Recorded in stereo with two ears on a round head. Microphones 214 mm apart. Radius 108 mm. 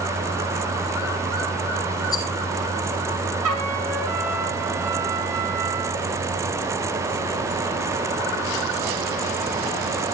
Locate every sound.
2.1 s a rattle: 15° left (ahead or behind), 4.5 m
3.4 s a trumpet: 80° right, 5 m